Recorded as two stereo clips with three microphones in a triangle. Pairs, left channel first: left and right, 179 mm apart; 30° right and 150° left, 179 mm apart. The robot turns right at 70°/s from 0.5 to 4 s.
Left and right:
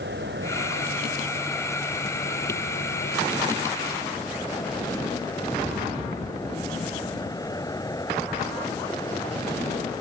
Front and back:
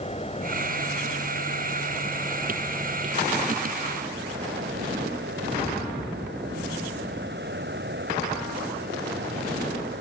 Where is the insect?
85° right; by 10.0 s 160° left.